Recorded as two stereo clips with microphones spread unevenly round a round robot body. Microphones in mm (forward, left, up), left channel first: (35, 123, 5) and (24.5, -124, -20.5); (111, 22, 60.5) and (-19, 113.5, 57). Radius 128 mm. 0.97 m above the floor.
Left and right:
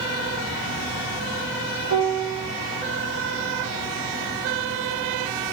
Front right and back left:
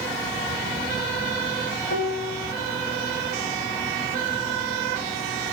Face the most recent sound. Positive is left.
turn(degrees=-50)